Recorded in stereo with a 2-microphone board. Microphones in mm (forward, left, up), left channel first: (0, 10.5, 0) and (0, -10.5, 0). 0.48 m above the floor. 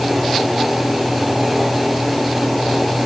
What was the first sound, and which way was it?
Only background noise.